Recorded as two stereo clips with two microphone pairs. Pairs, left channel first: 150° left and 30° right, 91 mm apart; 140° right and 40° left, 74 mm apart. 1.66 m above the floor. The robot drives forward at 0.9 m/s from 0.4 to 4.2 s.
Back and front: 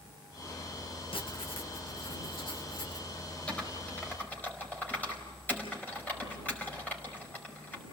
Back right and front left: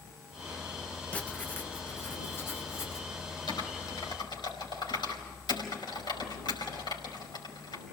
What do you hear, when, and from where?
1.1 s writing: 150° left, 1.4 m; by 3.1 s 165° left, 3 m
3.5 s typing on a keyboard: 135° right, 4.5 m; by 7.8 s 140° right, 5 m